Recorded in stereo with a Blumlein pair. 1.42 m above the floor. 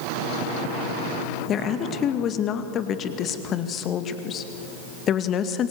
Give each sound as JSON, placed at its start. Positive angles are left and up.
{"t": 1.5, "sound": "a woman speaking", "azimuth_deg": 30, "distance_m": 2.0}